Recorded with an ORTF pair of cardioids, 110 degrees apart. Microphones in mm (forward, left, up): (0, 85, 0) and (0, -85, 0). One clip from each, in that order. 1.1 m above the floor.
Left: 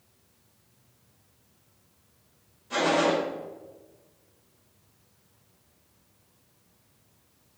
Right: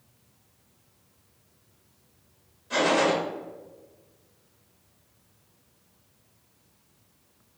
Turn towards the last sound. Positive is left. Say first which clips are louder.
# right 1 dB
turn(degrees=-10)